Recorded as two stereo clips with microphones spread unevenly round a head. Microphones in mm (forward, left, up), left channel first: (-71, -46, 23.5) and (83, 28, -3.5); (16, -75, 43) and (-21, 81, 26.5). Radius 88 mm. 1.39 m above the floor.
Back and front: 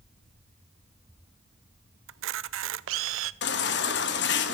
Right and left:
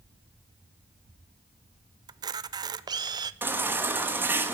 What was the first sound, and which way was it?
A camera shutter, 35° left.